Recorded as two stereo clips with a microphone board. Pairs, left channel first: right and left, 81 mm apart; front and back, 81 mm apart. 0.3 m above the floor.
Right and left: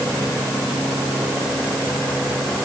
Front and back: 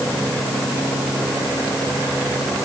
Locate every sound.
Only background noise.